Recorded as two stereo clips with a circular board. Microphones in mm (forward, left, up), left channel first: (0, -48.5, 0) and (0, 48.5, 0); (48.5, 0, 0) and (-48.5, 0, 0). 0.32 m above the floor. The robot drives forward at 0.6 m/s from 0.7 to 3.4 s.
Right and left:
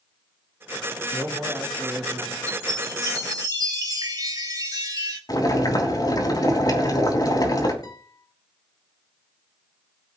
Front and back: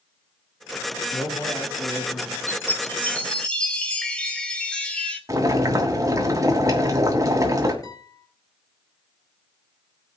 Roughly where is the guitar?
Ahead right.